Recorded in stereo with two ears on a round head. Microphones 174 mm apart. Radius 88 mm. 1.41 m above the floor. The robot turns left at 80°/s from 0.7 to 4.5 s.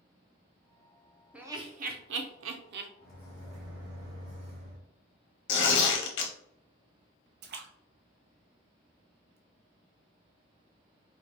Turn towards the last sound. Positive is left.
turn(degrees=-55)  # may be behind; listen again after turning